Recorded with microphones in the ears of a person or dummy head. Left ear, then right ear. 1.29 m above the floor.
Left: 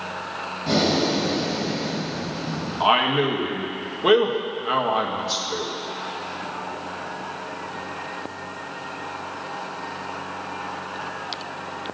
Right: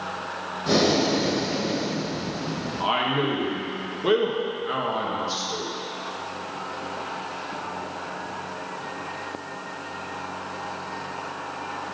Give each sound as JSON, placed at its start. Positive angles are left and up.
{"t": 0.7, "sound": "breathing", "side_deg": -20, "distance_m": 1.3}
{"t": 2.8, "sound": "a man speaking", "side_deg": 35, "distance_m": 1.3}